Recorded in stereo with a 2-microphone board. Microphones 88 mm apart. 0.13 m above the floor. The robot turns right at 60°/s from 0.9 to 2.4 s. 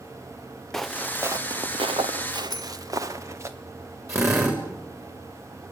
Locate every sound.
0.7 s footsteps: 5° left (ahead or behind), 1.3 m; by 3.5 s 30° right (ahead or behind), 1.9 m
2.5 s a bicycle bell: 45° left (ahead or behind), 3 m
4.1 s a drill: 30° right (ahead or behind), 7 m